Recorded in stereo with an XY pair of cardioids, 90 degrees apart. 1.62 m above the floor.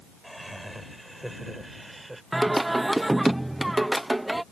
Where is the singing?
10° right.